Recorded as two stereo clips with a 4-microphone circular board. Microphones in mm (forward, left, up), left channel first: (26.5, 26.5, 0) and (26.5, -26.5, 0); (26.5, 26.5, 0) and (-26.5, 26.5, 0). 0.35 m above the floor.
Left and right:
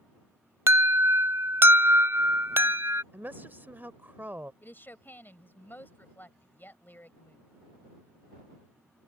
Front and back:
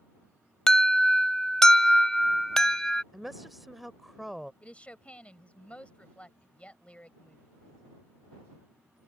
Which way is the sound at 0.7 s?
75° right.